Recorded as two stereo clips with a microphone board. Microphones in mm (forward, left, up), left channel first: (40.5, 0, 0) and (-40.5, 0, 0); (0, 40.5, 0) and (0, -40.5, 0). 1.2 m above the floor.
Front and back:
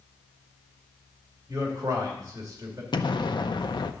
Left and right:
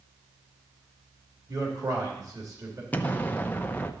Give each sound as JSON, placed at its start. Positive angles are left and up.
{"t": 1.5, "sound": "a man speaking", "azimuth_deg": -135, "distance_m": 2.5}
{"t": 2.9, "sound": "an explosion", "azimuth_deg": 20, "distance_m": 0.6}